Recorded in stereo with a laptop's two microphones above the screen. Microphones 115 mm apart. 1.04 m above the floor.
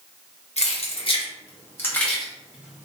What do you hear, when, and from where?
0.6 s keys jangling: 65° left (ahead or behind), 0.8 m; by 2.9 s 15° right (ahead or behind), 0.9 m